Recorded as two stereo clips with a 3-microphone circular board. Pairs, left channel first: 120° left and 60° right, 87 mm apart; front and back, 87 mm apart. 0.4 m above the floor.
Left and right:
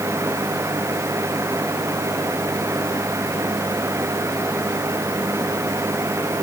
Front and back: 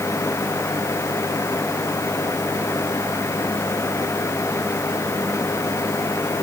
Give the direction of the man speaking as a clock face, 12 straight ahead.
No man speaking in this recording.